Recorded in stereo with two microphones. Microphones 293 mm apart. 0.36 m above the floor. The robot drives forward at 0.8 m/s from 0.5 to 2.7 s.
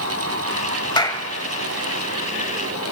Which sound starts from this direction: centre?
A clap, at 1.0 s.